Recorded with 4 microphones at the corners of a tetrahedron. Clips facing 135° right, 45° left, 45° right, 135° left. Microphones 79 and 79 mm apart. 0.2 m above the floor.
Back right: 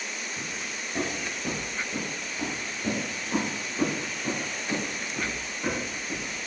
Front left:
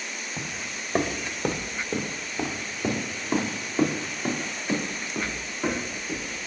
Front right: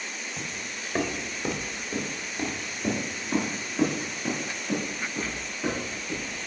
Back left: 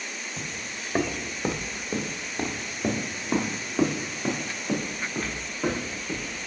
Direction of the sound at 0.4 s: 55° left.